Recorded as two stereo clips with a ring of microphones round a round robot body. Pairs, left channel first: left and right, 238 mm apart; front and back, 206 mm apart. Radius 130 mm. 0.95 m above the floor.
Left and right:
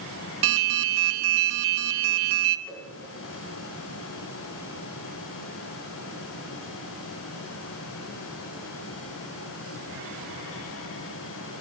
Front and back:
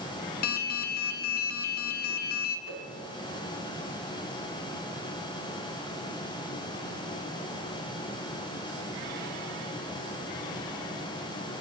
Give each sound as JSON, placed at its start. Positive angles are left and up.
{"t": 0.4, "sound": "an alarm", "azimuth_deg": -55, "distance_m": 0.5}
{"t": 2.7, "sound": "a whoosh", "azimuth_deg": 175, "distance_m": 3.5}